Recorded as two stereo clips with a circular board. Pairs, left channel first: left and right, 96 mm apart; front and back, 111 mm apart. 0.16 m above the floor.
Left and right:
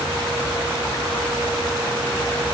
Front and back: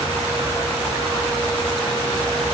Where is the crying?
No crying in this recording.